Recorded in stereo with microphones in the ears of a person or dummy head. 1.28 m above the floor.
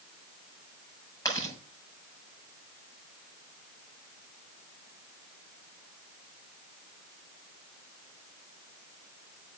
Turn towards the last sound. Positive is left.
turn(degrees=15)  # may be behind; listen again after turning